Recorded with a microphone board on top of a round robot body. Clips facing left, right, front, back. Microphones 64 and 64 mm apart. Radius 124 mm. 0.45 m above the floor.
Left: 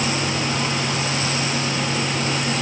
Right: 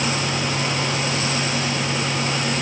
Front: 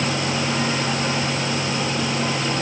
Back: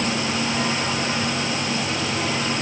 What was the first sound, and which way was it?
Only background noise.